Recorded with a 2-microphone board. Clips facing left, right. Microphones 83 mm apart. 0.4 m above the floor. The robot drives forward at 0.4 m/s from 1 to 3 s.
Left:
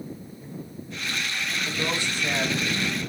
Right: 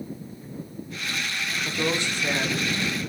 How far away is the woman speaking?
About 1.0 m.